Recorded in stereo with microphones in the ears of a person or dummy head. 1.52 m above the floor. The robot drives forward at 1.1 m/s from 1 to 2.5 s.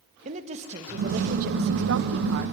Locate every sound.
0.2 s a woman speaking: 40° right (ahead or behind), 1.6 m; by 2.5 s 60° right (ahead or behind), 1.2 m